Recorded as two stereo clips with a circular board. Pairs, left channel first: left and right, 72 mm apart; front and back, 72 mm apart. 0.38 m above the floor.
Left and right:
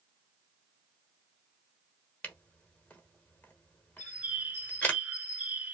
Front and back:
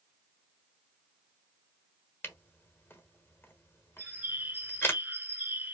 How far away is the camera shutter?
About 1.1 m.